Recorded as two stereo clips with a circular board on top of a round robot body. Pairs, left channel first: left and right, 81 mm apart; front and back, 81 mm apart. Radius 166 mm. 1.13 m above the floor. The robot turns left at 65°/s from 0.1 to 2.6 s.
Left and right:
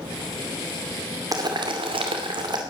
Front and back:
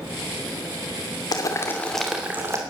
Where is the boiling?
45° right, 2.5 m; by 2.6 s 125° right, 2.5 m.